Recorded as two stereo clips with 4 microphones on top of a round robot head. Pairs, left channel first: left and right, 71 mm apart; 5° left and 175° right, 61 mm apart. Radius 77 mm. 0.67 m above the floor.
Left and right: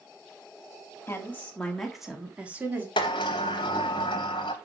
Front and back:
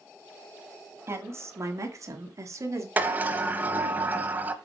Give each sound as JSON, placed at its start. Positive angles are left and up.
{"t": 1.1, "sound": "a woman speaking", "azimuth_deg": 150, "distance_m": 2.0}
{"t": 3.0, "sound": "a sliding door", "azimuth_deg": 125, "distance_m": 0.9}